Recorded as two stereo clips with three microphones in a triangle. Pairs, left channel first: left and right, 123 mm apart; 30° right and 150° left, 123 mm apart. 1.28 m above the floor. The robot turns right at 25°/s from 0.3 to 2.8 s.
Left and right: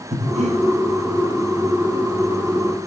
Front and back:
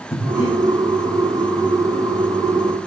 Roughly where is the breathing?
Ahead right.